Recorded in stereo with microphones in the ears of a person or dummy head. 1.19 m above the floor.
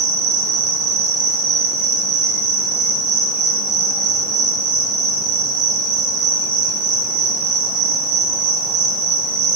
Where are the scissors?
No scissors in this recording.